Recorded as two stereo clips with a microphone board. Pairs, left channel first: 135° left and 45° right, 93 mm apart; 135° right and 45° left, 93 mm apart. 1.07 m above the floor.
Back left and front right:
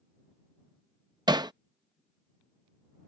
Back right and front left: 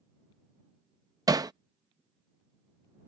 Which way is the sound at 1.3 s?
5° right.